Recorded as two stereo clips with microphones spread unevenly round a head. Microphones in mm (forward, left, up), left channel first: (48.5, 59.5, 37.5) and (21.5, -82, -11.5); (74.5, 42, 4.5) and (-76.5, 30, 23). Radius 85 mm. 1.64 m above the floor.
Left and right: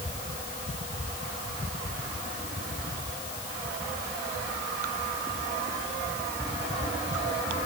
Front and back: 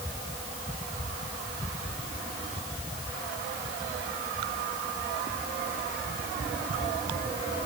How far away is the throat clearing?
I don't hear throat clearing.